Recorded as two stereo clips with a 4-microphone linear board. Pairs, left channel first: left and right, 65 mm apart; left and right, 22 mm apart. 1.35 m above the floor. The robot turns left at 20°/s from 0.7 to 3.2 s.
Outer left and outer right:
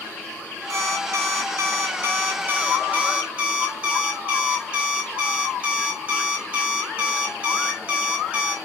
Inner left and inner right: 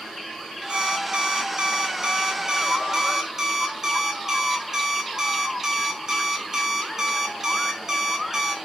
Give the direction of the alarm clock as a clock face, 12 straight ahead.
4 o'clock.